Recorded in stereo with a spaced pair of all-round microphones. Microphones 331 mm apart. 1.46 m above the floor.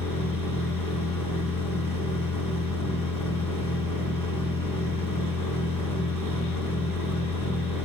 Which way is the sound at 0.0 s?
80° left.